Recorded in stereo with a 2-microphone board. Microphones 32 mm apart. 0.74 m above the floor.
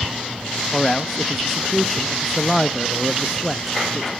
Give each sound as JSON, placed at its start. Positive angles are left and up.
{"t": 0.7, "sound": "a man speaking", "side_deg": 10, "distance_m": 0.6}